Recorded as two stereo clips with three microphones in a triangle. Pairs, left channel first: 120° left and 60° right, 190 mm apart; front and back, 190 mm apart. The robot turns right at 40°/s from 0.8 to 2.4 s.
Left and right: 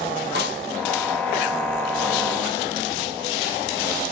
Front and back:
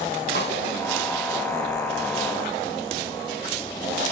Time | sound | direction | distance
0.3 | a snare drum | 30° right | 5 m